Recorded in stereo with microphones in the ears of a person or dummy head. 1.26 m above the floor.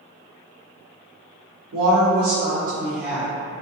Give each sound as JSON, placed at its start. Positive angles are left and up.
{"t": 1.7, "sound": "a woman speaking", "side_deg": -90, "distance_m": 0.8}